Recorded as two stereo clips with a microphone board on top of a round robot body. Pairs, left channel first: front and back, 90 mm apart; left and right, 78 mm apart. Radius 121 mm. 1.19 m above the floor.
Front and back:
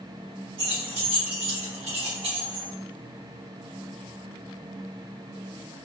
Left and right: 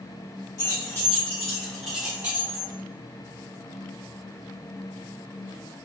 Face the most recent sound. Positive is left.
turn(degrees=-140)